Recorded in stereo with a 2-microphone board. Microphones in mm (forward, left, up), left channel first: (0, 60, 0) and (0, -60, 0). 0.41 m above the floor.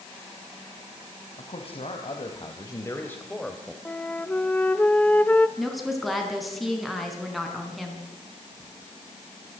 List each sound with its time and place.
1.4 s a man speaking: 60° left (ahead or behind), 3 m; by 3.8 s 10° right (ahead or behind), 2.0 m
3.9 s a flute: 10° left (ahead or behind), 0.8 m
5.6 s a woman speaking: centre (ahead or behind), 4.5 m